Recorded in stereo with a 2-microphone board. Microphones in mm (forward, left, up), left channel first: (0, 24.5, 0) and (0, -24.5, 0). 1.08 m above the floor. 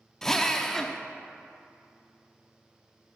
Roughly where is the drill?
Centre.